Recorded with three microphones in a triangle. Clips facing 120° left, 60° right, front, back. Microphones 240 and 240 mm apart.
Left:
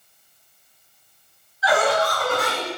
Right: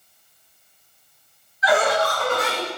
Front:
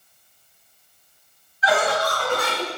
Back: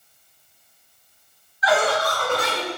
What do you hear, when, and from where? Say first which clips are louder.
1.6 s laughter: even, back 1 dB; 10° right, 1.4 m; by 2.7 s 45° right, 1.6 m